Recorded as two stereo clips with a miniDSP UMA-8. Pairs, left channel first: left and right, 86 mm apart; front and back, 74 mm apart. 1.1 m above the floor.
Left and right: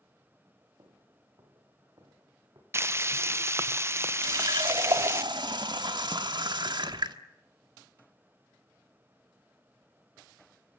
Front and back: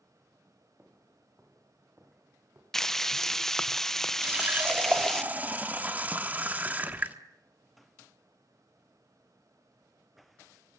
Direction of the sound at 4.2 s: 115° right.